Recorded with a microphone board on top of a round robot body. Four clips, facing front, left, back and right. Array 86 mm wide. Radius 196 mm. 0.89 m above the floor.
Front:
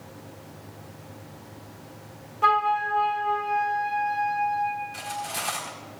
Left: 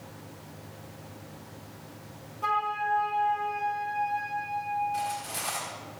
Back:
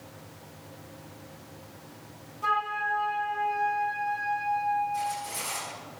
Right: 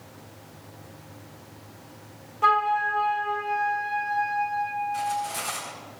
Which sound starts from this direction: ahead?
Cutlery clinking, at 4.9 s.